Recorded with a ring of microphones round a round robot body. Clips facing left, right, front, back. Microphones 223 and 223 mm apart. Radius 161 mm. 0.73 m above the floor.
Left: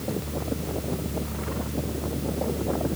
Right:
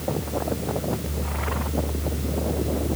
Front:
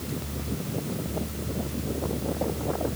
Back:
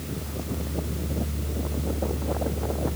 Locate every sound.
Only background noise.